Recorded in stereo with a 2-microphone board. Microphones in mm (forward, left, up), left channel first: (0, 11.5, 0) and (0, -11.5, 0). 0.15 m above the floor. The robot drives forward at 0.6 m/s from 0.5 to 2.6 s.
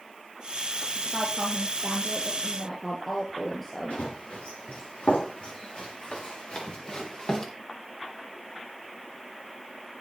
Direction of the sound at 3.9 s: 80° left.